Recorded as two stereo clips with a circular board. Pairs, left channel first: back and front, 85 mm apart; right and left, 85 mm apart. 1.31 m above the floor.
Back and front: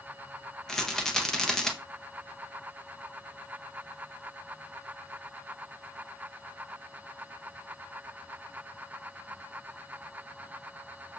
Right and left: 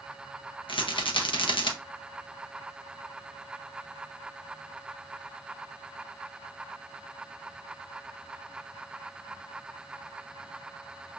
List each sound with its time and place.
0.7 s a rattle: 95° right, 0.8 m